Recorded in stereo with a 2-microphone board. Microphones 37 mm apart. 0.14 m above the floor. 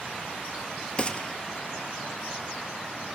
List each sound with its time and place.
1.0 s a gunshot: 30° left (ahead or behind), 0.7 m